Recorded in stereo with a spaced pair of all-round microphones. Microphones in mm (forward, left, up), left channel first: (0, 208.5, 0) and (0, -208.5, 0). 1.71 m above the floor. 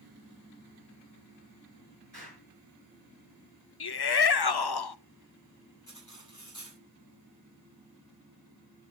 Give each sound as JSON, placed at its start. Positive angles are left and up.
{"t": 2.1, "sound": "an explosion", "side_deg": 65, "distance_m": 6.0}
{"t": 3.8, "sound": "a shout", "side_deg": 65, "distance_m": 0.6}
{"t": 5.9, "sound": "cutlery clinking", "side_deg": 45, "distance_m": 7.5}